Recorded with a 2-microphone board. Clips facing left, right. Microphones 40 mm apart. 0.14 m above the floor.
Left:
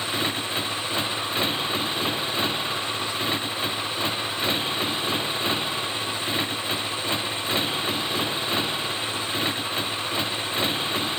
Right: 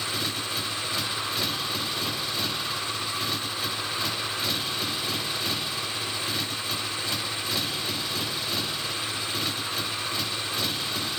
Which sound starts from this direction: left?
A motorcycle, at 0.0 s.